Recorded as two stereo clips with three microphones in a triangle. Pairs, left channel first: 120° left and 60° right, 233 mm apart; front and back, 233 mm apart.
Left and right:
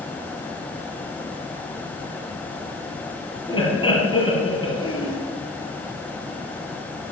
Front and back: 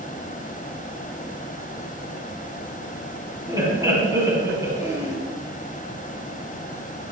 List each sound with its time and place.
3.5 s laughter: 135° left, 1.5 m